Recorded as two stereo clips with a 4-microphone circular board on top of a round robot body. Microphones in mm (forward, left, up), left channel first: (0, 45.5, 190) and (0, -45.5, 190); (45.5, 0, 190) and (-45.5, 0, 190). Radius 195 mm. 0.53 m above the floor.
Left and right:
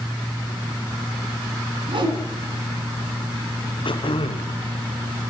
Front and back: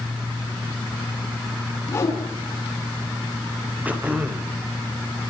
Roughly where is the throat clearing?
Left.